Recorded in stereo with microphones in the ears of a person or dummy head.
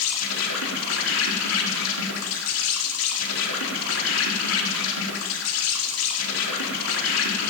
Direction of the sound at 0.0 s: 85° left.